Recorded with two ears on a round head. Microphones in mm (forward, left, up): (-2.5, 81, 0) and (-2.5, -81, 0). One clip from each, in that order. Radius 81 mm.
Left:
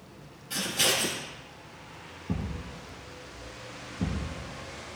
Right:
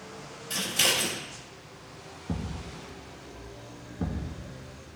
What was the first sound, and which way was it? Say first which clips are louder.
Scissors: right 1 dB; 35° right (ahead or behind).